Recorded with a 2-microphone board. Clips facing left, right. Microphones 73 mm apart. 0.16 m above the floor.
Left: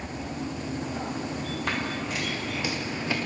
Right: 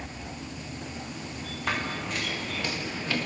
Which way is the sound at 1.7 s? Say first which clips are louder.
Right 2 dB; centre (ahead or behind).